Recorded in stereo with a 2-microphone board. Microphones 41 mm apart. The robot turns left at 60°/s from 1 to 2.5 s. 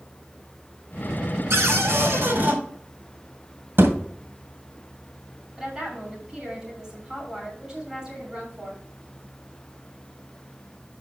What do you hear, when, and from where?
1.5 s a cupboard door: 75° right, 2.5 m; by 2.6 s 135° right, 2.5 m
3.8 s a thud: 65° right (ahead or behind), 2 m
5.6 s a woman speaking: 15° right (ahead or behind), 6.5 m